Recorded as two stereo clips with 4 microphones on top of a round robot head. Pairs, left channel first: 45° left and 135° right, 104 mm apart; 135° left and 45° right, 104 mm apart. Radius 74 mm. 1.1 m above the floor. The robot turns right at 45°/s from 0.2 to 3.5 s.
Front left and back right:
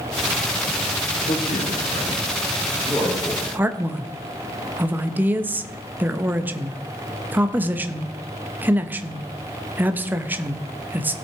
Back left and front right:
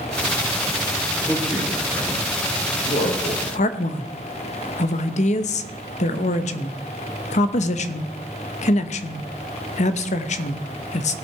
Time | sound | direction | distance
1.3 | a man speaking | 40° left | 4 m
3.5 | a man speaking | 150° left | 0.9 m